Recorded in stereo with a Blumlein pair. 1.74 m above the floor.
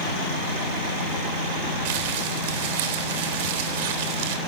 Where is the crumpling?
50° right, 3.5 m.